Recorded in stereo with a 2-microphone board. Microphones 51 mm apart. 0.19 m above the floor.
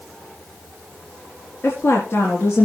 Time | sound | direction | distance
1.6 | a woman speaking | 55° left (ahead or behind) | 3 m